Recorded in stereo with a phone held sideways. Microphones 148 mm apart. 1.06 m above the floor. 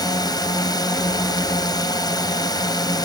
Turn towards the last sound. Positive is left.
turn(degrees=25)  # may be behind; listen again after turning